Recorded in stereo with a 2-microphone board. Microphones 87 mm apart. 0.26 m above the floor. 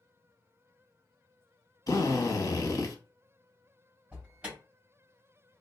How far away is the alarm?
About 1.7 m.